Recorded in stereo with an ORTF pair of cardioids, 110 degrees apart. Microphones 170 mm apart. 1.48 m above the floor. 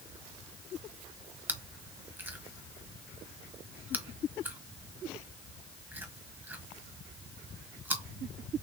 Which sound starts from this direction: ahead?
Chewing, at 1.5 s.